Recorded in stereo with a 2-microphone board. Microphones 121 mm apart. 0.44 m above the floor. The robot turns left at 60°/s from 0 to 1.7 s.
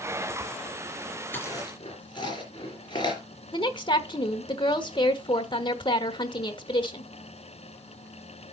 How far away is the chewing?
About 3.5 m.